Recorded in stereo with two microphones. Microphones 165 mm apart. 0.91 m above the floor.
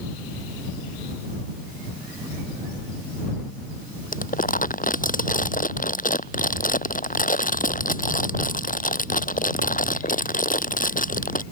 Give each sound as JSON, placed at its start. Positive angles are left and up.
{"t": 4.1, "sound": "crumpling", "side_deg": 55}